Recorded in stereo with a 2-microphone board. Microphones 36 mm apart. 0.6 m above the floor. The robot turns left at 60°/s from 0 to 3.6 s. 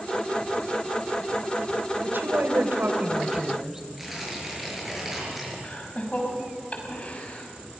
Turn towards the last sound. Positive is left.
turn(degrees=35)  # may be behind; listen again after turning